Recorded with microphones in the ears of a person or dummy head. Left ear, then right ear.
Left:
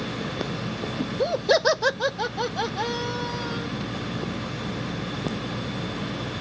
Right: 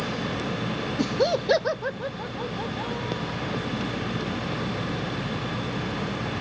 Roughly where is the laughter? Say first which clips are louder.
Right 3 dB; right.